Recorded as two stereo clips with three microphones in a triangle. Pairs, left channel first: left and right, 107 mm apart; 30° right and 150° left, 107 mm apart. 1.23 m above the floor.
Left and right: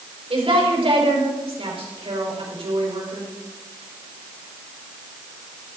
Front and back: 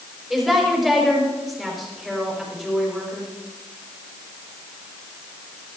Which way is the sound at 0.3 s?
125° right.